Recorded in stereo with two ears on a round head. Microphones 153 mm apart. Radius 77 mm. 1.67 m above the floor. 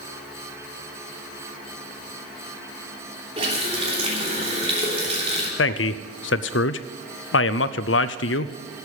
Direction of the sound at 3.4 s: 35° right (ahead or behind).